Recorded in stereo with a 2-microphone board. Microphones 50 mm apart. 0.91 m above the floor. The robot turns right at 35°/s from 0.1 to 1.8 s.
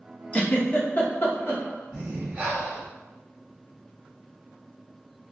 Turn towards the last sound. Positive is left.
turn(degrees=-30)  # may be behind; listen again after turning